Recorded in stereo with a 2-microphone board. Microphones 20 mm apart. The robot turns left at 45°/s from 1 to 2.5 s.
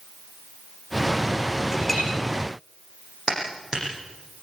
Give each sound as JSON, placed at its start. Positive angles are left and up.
{"t": 1.7, "sound": "a clink", "side_deg": -10, "distance_m": 7.5}
{"t": 3.3, "sound": "a clap", "side_deg": -40, "distance_m": 9.5}